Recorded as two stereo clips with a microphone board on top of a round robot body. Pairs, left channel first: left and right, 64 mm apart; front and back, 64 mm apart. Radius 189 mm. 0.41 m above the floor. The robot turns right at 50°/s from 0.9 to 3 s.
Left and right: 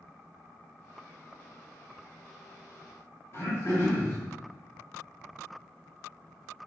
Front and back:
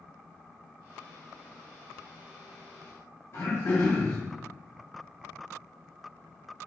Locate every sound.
3.3 s throat clearing: 45° left, 1.5 m